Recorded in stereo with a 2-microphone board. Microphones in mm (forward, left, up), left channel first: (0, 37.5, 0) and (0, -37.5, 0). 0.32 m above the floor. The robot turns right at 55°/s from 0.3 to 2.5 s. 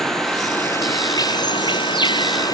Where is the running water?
5° left; by 2.5 s 125° left.